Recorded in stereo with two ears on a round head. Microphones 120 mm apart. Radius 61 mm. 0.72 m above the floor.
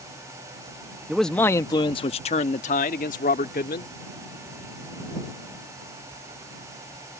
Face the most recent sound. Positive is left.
turn(degrees=70)  # may be behind; listen again after turning